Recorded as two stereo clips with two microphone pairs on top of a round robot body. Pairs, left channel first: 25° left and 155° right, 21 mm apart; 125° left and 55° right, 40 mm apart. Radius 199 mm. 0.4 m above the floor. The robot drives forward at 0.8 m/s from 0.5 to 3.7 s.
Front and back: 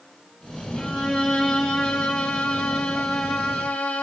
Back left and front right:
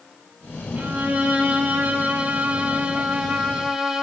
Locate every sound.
0.8 s a violin: 10° left, 3 m; by 4.0 s 30° left, 0.9 m